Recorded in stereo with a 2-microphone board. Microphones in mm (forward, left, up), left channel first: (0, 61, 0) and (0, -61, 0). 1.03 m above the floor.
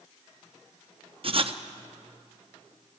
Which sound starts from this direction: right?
Writing, at 1.2 s.